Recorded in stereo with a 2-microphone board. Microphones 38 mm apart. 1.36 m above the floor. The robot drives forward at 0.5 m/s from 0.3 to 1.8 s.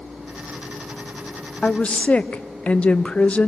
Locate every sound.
1.6 s a woman speaking: 30° left (ahead or behind), 0.6 m